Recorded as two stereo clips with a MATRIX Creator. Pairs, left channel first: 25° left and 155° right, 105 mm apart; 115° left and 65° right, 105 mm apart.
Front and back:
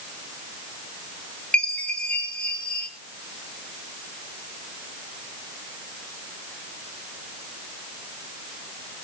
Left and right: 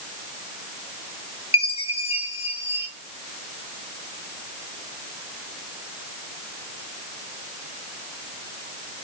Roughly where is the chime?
Left.